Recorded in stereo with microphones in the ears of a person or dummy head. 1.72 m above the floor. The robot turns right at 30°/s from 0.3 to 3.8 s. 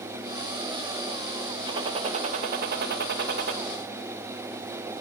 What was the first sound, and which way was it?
A gunshot, 145° right.